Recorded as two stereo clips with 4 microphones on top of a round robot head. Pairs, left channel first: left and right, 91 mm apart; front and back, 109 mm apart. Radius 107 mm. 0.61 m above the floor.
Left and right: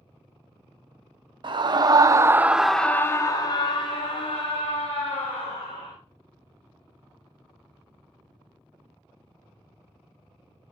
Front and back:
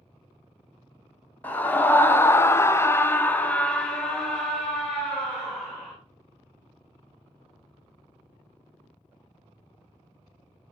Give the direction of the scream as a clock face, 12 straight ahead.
3 o'clock.